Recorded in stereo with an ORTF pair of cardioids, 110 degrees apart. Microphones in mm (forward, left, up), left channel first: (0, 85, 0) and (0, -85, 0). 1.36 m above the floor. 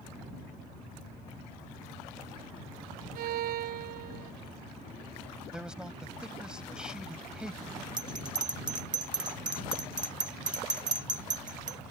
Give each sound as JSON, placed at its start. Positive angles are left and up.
{"t": 3.1, "sound": "a violin", "azimuth_deg": -65}
{"t": 5.5, "sound": "a man speaking", "azimuth_deg": -5}
{"t": 8.0, "sound": "a bell", "azimuth_deg": -25}